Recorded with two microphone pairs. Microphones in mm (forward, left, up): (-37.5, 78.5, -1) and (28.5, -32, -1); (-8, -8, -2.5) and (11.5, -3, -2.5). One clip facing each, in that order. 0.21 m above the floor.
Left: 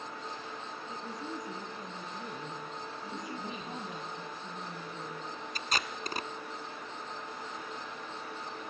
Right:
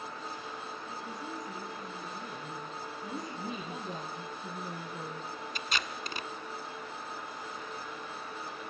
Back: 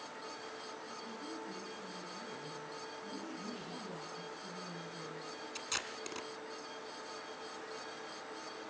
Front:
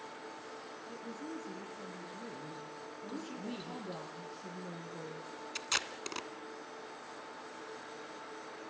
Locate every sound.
0.9 s a woman speaking: 50° left, 6.5 m
3.0 s a woman speaking: 5° right, 6 m
5.5 s tape being pulled: 80° left, 1.3 m